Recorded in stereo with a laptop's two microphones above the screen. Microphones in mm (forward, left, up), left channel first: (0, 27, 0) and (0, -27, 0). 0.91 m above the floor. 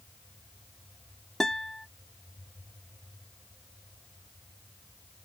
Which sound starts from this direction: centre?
A guitar, at 1.4 s.